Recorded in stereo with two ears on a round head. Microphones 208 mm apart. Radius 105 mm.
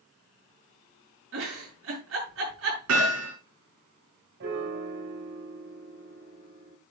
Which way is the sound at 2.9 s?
65° right (ahead or behind).